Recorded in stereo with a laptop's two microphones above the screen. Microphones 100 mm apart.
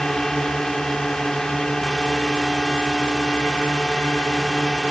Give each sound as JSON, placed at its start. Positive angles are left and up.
{"t": 0.0, "sound": "a drone", "side_deg": 5}